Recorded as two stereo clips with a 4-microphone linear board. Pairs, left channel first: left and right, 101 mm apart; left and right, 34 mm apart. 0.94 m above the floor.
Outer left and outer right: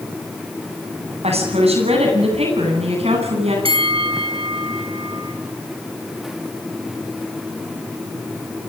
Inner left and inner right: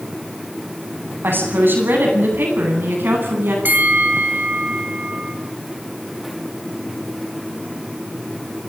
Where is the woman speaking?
85° right, 9 m.